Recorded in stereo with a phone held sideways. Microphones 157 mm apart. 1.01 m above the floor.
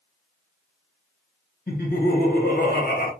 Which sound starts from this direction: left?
Laughter, at 1.7 s.